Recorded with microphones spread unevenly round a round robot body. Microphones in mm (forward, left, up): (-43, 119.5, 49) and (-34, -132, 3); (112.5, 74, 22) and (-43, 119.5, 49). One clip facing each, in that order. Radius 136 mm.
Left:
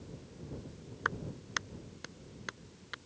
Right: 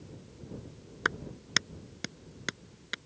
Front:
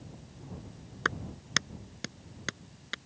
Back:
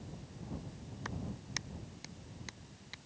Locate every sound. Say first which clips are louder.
1.1 s a clap: right 4 dB, front 6 dB; 50° right